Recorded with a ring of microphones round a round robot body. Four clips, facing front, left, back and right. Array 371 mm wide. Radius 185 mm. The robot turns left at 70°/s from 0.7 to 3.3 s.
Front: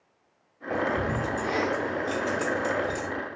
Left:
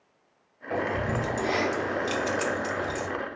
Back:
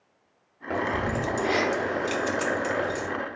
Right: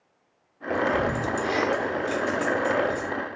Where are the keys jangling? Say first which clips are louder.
Right 4 dB, even; 120° right, 0.6 m; by 3.1 s 75° left, 0.6 m.